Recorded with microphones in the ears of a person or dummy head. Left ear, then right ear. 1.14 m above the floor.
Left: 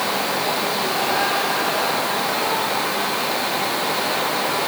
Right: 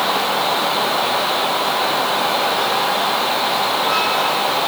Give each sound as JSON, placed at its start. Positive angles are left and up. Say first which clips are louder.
{"t": 0.0, "sound": "a fan", "louder": "right 4 dB", "side_deg": -40}